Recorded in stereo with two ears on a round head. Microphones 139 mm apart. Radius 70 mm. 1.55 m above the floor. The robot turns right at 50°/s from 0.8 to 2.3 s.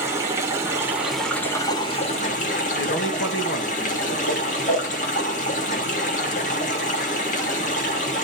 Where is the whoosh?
80° left, 6 m.